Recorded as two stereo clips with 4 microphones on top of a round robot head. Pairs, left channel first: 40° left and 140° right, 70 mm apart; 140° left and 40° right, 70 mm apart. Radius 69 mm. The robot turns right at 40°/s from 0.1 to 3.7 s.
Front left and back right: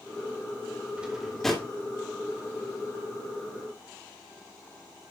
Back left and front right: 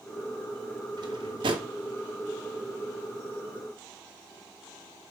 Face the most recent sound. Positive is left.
turn(degrees=45)